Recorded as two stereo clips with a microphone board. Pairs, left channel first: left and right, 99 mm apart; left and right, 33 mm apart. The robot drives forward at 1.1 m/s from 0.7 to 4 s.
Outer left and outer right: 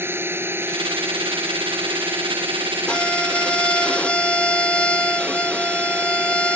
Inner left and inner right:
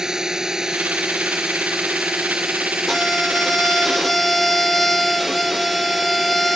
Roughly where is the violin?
Centre.